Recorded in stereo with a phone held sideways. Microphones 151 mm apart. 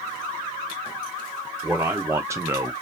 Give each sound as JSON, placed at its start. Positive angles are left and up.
{"t": 1.6, "sound": "a man speaking", "side_deg": -10, "distance_m": 0.7}